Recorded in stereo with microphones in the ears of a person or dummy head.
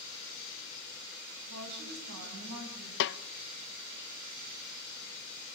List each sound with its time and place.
1.5 s a woman speaking: 80° right, 10 m; by 2.9 s 85° right, 11 m
3.0 s a snare drum: 65° left (ahead or behind), 0.7 m